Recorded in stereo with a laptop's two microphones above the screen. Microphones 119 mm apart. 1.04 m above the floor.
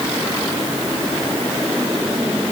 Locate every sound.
Only background noise.